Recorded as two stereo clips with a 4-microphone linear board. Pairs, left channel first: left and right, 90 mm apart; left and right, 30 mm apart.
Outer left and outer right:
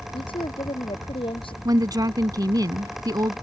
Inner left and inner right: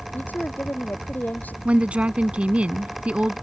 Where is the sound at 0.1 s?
75° left (ahead or behind).